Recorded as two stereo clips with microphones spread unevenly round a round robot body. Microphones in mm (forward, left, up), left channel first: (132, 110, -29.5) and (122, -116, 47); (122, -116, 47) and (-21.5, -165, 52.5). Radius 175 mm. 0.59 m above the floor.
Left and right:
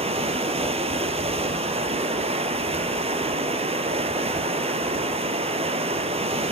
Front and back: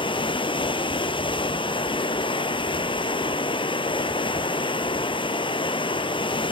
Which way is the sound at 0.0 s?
40° right.